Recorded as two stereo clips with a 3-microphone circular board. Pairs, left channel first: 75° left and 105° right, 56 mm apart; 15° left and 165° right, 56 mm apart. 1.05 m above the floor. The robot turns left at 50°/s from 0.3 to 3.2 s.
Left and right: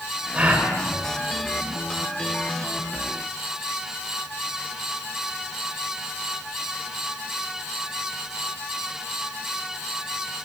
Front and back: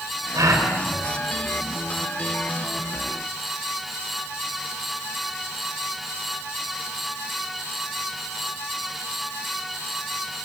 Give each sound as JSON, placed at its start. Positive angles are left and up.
{"t": 0.3, "sound": "a gasp", "azimuth_deg": -170, "distance_m": 5.5}